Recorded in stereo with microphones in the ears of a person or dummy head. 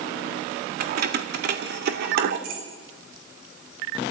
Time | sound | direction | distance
0.8 | keys jangling | 60° right (ahead or behind) | 1.4 m